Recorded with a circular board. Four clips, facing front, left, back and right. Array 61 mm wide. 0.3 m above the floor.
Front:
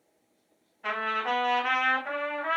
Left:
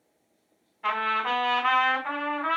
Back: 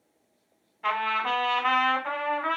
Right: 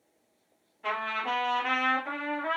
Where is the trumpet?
145° left, 1.2 m.